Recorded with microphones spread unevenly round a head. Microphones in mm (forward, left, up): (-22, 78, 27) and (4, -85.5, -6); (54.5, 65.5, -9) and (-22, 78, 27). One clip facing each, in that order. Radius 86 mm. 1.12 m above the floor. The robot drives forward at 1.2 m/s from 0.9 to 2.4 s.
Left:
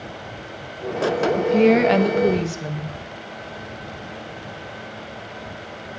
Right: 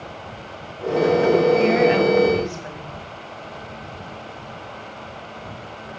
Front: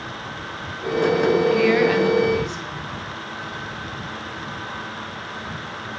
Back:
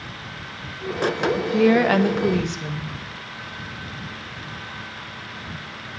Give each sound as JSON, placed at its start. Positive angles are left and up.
{"t": 1.4, "sound": "a woman speaking", "azimuth_deg": 70, "distance_m": 0.9}